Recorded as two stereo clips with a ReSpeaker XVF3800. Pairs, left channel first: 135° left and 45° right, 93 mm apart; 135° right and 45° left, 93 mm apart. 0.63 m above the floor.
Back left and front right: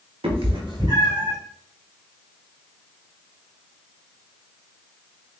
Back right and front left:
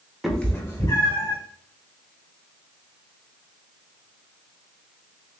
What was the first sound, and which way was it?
A cat meowing, 40° right.